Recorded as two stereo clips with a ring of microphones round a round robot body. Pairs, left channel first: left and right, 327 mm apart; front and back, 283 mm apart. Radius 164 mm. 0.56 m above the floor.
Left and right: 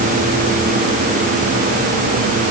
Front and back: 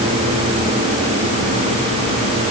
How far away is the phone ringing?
I don't hear a phone ringing.